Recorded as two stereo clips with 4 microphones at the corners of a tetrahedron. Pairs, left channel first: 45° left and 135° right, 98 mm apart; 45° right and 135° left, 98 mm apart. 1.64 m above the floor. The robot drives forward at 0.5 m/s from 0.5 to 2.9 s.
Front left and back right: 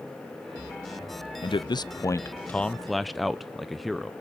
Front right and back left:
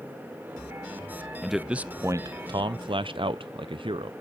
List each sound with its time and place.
1.4 s a man speaking: 45° left, 0.6 m; by 4.1 s 135° left, 0.6 m